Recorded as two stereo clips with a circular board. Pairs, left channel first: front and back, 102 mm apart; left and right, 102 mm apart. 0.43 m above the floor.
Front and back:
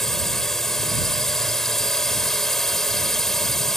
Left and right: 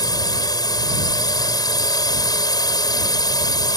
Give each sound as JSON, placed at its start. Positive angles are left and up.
{"t": 0.0, "sound": "a drone", "azimuth_deg": 85}